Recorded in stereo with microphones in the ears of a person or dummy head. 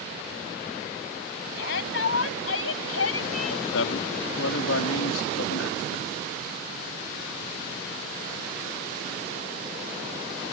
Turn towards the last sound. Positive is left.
turn(degrees=80)